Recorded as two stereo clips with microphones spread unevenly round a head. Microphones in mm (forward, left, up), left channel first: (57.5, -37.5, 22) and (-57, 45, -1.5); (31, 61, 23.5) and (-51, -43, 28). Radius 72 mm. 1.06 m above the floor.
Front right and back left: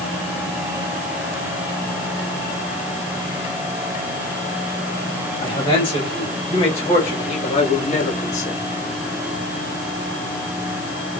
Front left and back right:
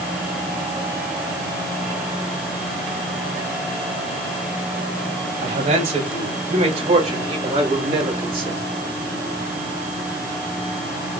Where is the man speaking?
95° right, 3.5 m; by 8.6 s 75° right, 2 m.